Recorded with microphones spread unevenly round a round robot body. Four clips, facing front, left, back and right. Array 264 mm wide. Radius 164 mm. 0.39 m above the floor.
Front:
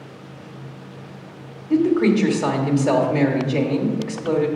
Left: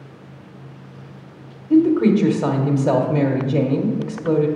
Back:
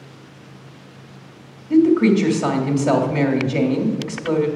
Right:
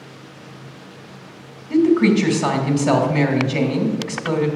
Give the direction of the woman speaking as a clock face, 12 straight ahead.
9 o'clock.